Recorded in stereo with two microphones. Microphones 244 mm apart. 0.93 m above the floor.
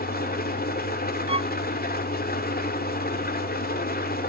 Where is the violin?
25° right (ahead or behind), 0.6 m.